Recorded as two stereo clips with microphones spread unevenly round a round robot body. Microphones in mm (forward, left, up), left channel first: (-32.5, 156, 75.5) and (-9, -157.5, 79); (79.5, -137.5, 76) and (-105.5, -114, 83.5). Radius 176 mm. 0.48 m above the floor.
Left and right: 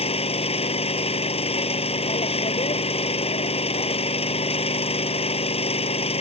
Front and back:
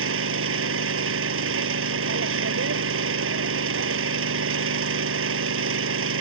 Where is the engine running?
165° left.